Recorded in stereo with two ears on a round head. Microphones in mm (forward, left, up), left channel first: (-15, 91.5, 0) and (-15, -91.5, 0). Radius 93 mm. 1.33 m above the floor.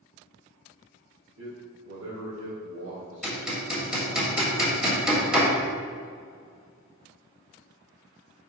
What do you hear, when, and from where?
1.4 s a man speaking: 60° right (ahead or behind), 1.8 m; by 4.2 s 85° right, 3 m
3.2 s hammering: 5° right (ahead or behind), 1.9 m